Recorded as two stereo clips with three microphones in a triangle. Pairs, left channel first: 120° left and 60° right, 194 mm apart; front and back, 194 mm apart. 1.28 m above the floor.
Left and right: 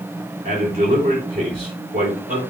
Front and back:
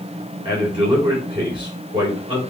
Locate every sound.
0.5 s a man speaking: 115° right, 5 m